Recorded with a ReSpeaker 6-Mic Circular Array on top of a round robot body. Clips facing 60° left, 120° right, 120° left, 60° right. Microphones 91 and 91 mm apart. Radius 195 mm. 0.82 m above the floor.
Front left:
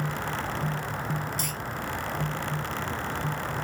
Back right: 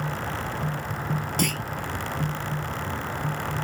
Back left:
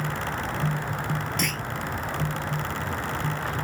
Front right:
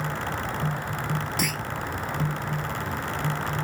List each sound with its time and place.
1.4 s a clunk: 145° right